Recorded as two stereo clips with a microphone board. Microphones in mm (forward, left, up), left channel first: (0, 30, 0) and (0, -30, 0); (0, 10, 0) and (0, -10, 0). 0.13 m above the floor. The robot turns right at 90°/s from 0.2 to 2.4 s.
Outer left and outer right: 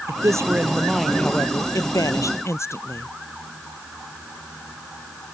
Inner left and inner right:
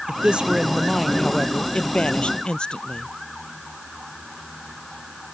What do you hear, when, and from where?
0.1 s a man speaking: 75° right; by 3.1 s 125° left